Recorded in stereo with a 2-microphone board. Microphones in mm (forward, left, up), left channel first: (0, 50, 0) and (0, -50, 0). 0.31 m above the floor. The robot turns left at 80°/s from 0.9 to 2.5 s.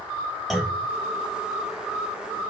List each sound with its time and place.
0.5 s a clunk: centre (ahead or behind), 0.7 m